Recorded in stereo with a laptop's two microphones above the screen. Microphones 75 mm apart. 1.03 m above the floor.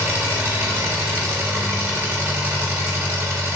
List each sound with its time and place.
0.0 s an engine running: 25° right (ahead or behind), 0.7 m